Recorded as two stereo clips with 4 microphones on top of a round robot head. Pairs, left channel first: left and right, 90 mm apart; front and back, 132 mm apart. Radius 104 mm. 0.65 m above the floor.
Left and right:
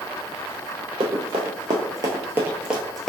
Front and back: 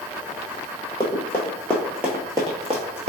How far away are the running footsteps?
About 1.0 m.